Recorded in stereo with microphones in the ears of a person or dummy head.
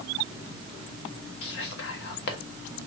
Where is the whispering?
55° left (ahead or behind), 0.8 m.